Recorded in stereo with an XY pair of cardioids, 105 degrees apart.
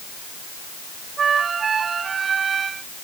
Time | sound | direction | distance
1.2 | a flute | 45° right | ?